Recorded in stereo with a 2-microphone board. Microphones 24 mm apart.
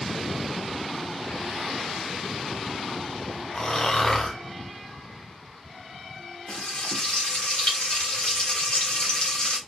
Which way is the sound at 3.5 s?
20° left (ahead or behind).